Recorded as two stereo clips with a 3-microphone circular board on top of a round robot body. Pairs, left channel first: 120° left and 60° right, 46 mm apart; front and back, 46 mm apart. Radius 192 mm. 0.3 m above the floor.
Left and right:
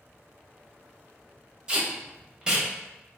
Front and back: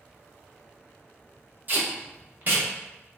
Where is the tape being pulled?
130° right, 1.1 m.